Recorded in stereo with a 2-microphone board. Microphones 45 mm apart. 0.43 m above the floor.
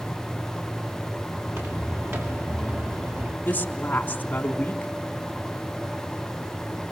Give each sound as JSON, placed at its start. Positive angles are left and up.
{"t": 1.4, "sound": "footsteps", "side_deg": -70, "distance_m": 7.0}
{"t": 3.5, "sound": "a woman speaking", "side_deg": 40, "distance_m": 3.5}